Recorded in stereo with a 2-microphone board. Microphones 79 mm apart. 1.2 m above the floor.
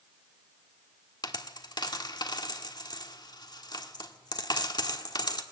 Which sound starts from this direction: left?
A dropped coin, at 1.2 s.